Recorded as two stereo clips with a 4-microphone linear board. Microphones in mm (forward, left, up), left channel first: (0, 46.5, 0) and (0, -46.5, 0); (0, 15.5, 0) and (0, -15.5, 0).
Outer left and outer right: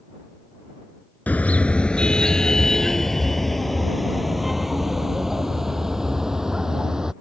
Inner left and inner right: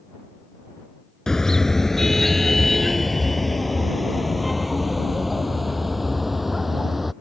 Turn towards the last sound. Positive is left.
turn(degrees=-5)  # may be behind; listen again after turning